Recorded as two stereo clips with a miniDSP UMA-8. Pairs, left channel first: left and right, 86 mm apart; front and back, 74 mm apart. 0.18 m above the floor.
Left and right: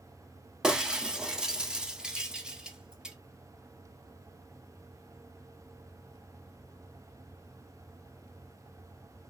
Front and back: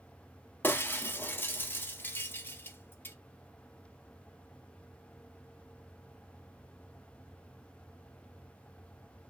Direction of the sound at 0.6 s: 20° right.